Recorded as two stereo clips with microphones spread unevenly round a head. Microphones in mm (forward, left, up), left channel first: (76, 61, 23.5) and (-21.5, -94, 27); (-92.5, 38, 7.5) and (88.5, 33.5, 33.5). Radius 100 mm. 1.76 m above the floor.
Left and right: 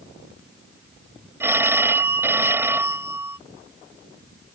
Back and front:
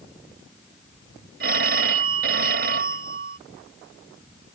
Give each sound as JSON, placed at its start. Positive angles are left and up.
{"t": 1.4, "sound": "a phone ringing", "azimuth_deg": -45}